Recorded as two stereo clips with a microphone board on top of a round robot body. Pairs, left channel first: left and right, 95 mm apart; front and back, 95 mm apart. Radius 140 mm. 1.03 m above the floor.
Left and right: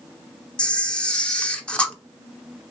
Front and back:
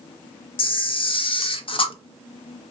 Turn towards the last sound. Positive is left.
turn(degrees=10)